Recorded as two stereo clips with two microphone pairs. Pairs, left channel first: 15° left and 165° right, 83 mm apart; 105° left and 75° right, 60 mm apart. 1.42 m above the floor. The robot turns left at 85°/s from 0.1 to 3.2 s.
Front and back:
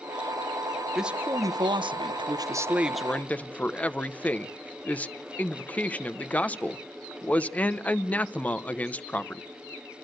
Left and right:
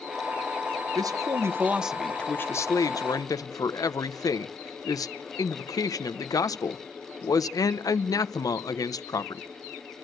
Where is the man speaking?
80° right, 0.8 m; by 9.4 s 90° left, 0.8 m.